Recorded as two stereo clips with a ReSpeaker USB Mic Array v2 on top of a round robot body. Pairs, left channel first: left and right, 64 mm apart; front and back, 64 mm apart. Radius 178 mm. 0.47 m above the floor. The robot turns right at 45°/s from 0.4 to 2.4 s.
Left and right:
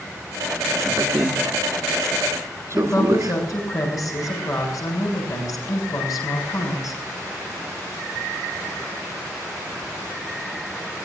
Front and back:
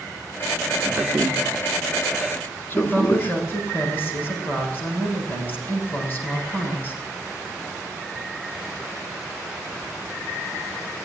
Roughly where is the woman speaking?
Ahead left.